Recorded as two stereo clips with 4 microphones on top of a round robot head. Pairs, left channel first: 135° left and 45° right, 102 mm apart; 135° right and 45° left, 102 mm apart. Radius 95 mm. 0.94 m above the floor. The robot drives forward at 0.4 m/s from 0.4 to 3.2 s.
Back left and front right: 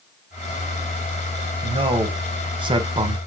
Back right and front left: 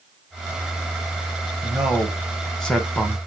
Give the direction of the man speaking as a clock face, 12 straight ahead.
1 o'clock.